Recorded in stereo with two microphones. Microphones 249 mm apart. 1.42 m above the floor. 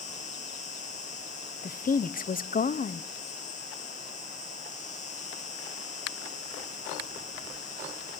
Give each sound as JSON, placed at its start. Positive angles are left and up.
{"t": 0.0, "sound": "an insect", "side_deg": 30, "distance_m": 2.5}
{"t": 1.6, "sound": "a woman speaking", "side_deg": 35, "distance_m": 0.6}